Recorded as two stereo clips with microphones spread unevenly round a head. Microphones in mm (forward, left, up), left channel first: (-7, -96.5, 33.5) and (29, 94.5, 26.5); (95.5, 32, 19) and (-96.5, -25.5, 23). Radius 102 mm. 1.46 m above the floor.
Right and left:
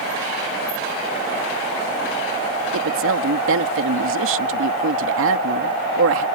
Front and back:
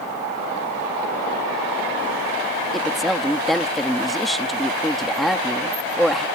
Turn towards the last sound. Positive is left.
turn(degrees=105)